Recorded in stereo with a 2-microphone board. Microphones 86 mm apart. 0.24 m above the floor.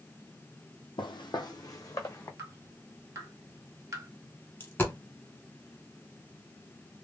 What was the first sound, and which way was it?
Footsteps, 75° left (ahead or behind).